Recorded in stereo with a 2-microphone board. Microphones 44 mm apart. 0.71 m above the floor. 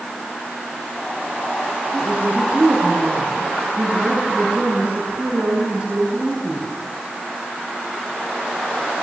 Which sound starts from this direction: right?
A woman speaking, at 1.9 s.